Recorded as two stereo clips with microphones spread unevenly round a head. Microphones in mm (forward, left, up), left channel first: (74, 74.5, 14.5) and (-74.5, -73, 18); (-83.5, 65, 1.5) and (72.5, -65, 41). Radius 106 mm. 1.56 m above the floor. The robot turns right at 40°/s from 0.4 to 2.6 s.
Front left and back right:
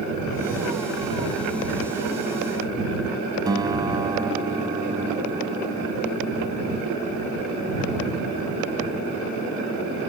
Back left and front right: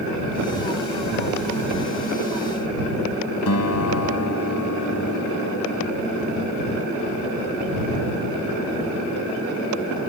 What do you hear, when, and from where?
3.5 s a guitar: 155° left